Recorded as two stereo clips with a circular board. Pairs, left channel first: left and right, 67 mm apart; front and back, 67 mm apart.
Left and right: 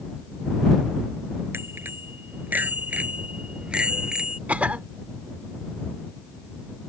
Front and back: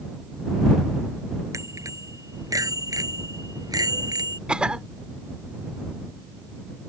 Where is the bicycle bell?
145° right; by 4.4 s 170° right.